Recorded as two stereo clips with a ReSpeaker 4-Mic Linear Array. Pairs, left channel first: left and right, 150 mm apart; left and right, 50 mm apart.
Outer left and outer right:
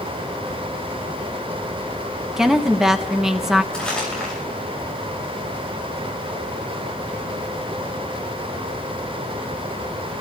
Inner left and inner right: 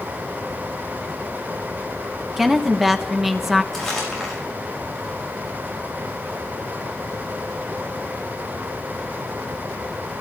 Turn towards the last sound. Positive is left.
turn(degrees=5)  # may be behind; listen again after turning